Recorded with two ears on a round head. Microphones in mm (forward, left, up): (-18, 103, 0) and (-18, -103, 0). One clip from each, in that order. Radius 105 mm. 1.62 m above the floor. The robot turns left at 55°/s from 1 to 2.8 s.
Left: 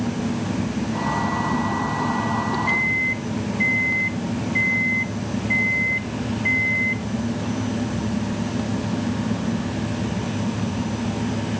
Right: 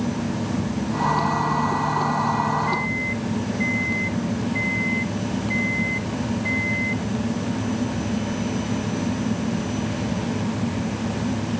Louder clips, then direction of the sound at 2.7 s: Left 4 dB; 45° left (ahead or behind).